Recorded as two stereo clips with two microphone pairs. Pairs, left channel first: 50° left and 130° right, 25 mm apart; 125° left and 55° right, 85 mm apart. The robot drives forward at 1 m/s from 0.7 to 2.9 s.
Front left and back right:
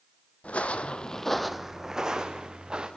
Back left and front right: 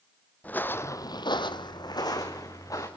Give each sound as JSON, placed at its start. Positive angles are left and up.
{"t": 0.4, "sound": "footsteps", "azimuth_deg": 55, "distance_m": 1.7}